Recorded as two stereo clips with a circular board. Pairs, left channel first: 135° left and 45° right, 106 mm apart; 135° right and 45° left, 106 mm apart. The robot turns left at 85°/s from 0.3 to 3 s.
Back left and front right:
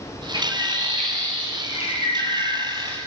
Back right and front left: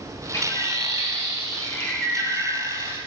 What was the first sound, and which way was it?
A bird, 75° right.